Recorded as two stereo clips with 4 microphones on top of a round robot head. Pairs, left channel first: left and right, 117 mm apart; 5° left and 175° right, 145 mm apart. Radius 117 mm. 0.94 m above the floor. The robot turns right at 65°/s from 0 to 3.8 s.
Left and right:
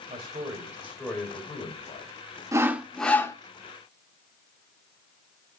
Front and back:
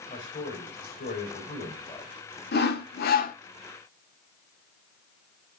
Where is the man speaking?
65° right, 5 m; by 2.1 s 65° left, 5 m.